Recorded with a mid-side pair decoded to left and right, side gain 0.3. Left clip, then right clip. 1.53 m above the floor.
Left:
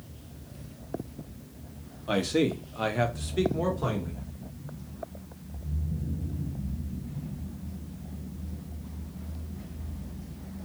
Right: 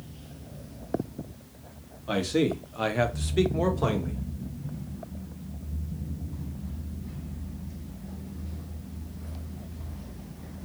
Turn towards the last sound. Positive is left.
turn(degrees=-65)